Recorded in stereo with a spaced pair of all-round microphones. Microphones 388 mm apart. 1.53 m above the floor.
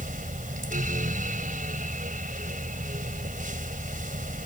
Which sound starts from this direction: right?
A fan, at 0.0 s.